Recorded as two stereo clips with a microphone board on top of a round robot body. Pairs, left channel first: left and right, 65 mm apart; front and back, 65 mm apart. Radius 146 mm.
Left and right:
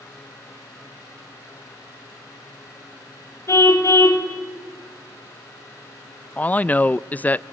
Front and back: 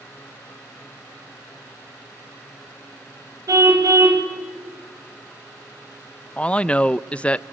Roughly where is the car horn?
Behind left.